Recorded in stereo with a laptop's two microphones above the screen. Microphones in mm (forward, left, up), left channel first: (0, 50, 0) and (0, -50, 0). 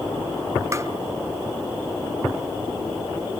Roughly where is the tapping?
Right.